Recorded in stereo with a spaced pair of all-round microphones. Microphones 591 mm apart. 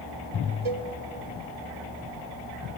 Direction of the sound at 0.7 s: 55° right (ahead or behind).